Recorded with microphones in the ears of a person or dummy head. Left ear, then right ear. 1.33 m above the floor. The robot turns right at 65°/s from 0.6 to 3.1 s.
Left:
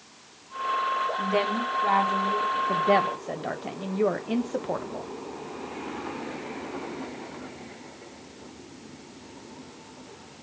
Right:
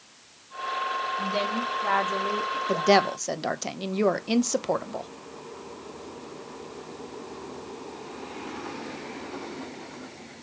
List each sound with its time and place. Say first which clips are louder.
1.2 s a woman speaking: left 2 dB; 145° left, 3 m; by 2.6 s 120° right, 3 m
2.7 s a woman speaking: right 3 dB; 70° right (ahead or behind), 1.1 m; by 5.1 s 80° right, 1.1 m